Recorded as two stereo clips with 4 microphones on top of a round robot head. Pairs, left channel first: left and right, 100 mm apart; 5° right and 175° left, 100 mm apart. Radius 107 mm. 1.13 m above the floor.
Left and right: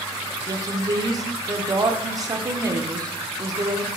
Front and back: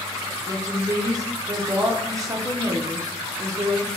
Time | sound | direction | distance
0.5 | a woman speaking | 135° right | 0.7 m